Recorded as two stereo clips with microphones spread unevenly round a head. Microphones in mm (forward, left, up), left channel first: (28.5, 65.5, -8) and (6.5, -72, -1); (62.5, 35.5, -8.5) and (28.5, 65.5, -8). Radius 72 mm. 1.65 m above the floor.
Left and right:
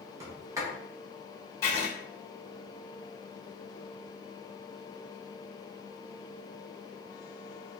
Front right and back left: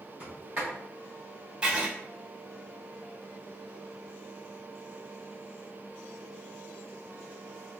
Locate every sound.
0.2 s a sliding door: 160° right, 0.9 m
1.6 s writing: 130° left, 1.4 m